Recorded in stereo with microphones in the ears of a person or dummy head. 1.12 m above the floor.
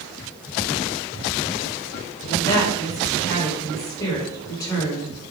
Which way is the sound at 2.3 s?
20° left (ahead or behind).